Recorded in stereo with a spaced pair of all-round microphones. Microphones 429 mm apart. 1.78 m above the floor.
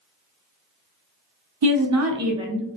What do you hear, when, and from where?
1.6 s a woman speaking: 60° right (ahead or behind), 0.6 m; by 2.8 s 10° left (ahead or behind), 0.6 m